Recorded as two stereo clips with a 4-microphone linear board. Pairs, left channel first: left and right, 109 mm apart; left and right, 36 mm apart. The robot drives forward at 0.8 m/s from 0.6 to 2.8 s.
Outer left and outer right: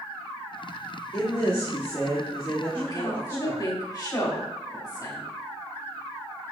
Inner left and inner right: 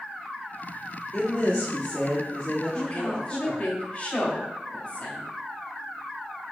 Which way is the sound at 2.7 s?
40° left (ahead or behind).